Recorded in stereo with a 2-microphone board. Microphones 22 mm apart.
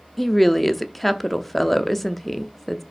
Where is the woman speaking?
5° left (ahead or behind), 0.6 m.